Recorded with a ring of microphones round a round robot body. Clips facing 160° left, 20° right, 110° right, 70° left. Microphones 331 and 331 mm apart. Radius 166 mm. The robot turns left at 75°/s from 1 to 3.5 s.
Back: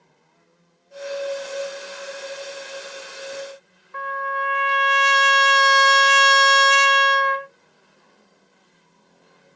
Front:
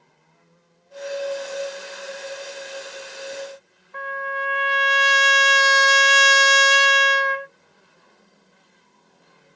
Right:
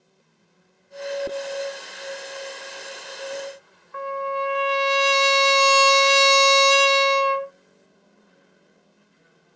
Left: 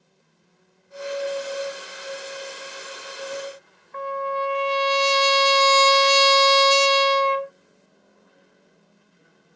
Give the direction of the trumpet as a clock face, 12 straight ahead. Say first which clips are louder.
Even, even; 5 o'clock.